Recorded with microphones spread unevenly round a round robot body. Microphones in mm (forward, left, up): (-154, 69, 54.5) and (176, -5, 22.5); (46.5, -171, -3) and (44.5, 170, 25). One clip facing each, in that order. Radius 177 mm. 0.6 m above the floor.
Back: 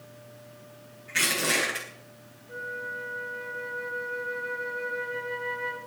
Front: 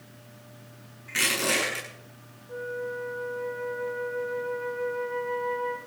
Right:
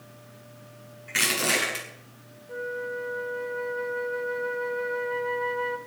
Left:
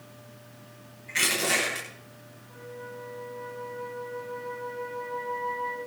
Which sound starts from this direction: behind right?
A flute, at 2.5 s.